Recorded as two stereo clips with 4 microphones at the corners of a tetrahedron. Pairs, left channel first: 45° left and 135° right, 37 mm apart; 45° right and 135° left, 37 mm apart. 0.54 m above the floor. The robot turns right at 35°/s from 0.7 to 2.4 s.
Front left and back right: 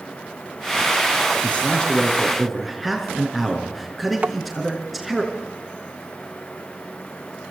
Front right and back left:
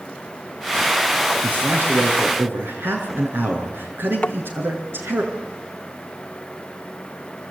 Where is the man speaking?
100° left, 6.5 m; by 5.2 s 135° left, 6.5 m.